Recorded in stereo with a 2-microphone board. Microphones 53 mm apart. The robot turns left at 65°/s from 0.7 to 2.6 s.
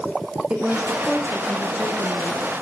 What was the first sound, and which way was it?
A woman speaking, 160° right.